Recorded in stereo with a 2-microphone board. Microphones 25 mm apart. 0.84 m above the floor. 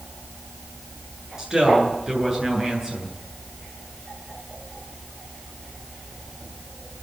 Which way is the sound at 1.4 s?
20° right (ahead or behind).